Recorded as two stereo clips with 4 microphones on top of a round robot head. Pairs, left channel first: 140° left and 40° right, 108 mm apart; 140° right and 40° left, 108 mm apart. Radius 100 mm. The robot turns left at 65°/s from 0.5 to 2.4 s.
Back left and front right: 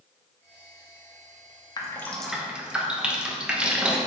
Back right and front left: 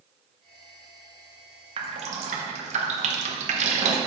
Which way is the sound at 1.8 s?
80° left.